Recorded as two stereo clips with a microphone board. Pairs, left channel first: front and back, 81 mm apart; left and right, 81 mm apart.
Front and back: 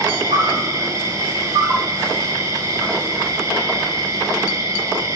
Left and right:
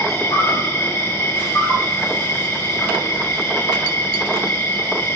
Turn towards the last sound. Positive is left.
turn(degrees=140)